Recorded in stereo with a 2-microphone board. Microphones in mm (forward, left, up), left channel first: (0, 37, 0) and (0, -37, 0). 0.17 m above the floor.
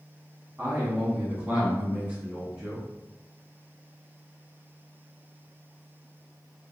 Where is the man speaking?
20° right (ahead or behind), 1.1 m; by 2.9 s 10° right (ahead or behind), 1.7 m.